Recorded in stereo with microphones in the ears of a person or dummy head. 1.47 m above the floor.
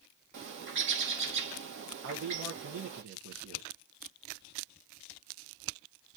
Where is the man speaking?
60° right (ahead or behind), 0.9 m.